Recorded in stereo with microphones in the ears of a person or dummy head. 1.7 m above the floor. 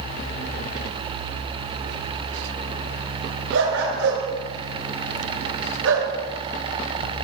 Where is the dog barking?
75° right (ahead or behind), 7.5 m.